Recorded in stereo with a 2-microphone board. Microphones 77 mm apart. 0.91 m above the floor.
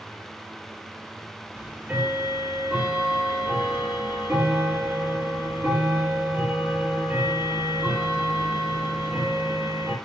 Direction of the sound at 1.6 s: 25° right (ahead or behind).